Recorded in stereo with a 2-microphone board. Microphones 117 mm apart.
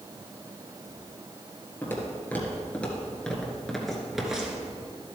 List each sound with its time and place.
1.8 s footsteps: 20° left (ahead or behind), 1.9 m; by 4.7 s 10° right (ahead or behind), 1.6 m